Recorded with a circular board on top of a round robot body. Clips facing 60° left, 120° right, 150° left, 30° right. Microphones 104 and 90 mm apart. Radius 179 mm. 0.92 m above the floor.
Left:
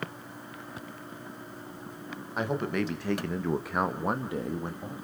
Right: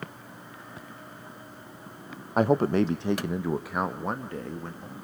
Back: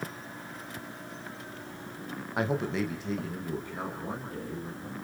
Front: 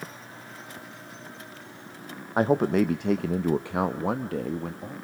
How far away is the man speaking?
About 0.9 m.